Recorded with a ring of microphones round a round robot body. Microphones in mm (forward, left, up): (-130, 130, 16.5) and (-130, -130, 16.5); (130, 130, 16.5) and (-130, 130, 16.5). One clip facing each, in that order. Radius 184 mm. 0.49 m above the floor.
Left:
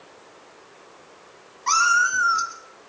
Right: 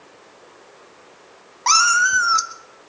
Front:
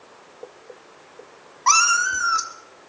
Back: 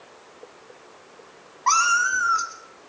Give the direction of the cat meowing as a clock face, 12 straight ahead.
2 o'clock.